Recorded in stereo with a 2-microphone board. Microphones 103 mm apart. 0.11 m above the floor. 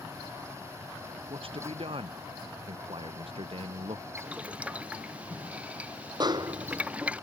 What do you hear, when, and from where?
1.3 s a man speaking: 65° right (ahead or behind)
4.2 s boiling: 15° right (ahead or behind)
6.2 s a snare drum: 45° right (ahead or behind)